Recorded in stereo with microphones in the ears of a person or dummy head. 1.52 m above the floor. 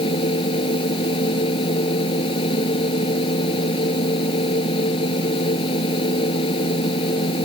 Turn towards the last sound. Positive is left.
turn(degrees=30)  # may be behind; listen again after turning